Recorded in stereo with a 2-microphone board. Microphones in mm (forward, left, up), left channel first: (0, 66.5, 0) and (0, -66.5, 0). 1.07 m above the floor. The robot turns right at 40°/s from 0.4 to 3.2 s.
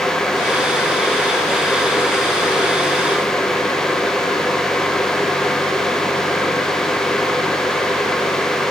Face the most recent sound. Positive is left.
No sound to turn to.